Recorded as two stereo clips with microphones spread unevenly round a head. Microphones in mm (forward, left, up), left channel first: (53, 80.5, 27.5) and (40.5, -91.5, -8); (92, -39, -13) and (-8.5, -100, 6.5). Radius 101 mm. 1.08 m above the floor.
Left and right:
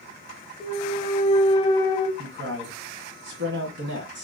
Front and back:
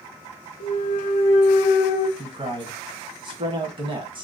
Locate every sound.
0.6 s a clunk: 30° left, 0.7 m
2.2 s a man speaking: 100° right, 1.4 m